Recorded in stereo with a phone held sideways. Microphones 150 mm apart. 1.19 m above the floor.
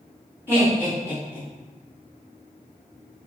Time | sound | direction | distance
0.5 | laughter | 15° left (ahead or behind) | 1.7 m